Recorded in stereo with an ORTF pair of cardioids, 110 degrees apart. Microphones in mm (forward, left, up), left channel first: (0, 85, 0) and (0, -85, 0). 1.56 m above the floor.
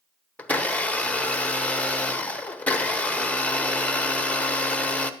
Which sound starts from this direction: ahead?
A blender, at 0.4 s.